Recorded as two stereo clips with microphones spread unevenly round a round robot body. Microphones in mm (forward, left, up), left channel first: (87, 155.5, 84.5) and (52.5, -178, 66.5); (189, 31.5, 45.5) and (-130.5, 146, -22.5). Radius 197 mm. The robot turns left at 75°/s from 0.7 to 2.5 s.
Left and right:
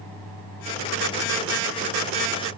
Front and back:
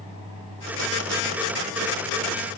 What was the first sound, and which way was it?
Only background noise.